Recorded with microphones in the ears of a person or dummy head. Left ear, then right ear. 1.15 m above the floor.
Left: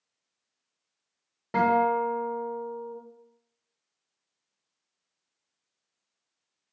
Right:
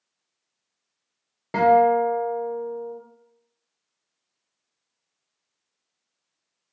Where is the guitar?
10° right (ahead or behind), 0.8 m.